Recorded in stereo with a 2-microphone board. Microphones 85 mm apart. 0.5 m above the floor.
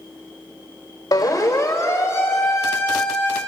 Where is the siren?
50° left (ahead or behind), 2.5 m; by 3.4 s 20° left (ahead or behind), 5 m.